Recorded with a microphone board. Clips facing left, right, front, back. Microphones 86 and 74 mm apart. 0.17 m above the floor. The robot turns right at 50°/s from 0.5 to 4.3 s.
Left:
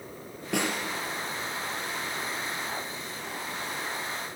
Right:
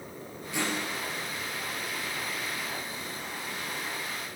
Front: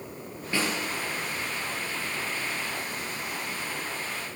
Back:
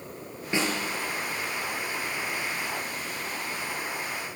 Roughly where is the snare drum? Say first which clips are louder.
Left 3 dB, back 1 dB; left.